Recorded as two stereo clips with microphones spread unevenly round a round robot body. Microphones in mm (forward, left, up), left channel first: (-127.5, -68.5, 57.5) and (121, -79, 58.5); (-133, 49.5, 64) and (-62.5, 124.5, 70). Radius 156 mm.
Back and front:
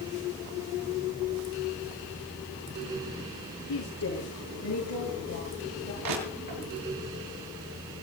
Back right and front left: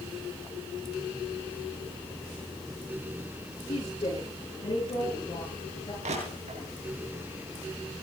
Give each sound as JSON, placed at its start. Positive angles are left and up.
{"t": 3.7, "sound": "a woman speaking", "azimuth_deg": 180, "distance_m": 7.5}
{"t": 6.0, "sound": "crushing", "azimuth_deg": 20, "distance_m": 7.0}